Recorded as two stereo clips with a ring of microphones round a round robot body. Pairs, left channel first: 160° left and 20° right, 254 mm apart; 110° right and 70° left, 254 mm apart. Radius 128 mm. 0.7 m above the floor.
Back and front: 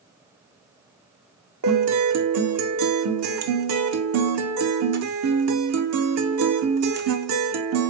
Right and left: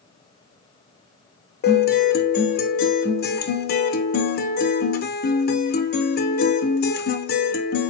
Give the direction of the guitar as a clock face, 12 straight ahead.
2 o'clock.